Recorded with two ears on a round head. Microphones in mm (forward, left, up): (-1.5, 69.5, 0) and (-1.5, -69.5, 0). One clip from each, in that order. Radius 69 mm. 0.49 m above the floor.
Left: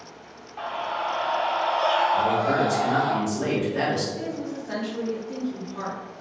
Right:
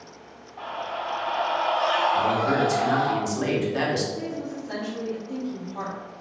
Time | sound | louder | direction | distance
0.6 | a scream | left 3 dB | 45° left (ahead or behind) | 1.0 m
2.1 | a man speaking | even | 45° right (ahead or behind) | 1.1 m
4.1 | a woman speaking | left 1 dB | 10° left (ahead or behind) | 0.9 m